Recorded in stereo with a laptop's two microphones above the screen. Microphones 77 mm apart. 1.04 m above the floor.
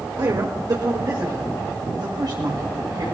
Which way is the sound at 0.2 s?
55° right (ahead or behind).